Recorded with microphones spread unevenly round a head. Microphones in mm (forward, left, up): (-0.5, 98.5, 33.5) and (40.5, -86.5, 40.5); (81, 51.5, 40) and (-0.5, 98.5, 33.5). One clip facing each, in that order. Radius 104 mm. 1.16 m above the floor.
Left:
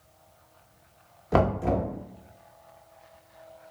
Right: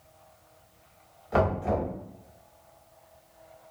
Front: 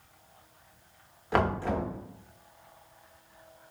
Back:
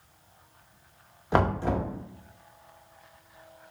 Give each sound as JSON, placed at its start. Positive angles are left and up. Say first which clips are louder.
{"t": 1.3, "sound": "knocking", "louder": "left 2 dB, back 2 dB", "azimuth_deg": 85, "distance_m": 0.7}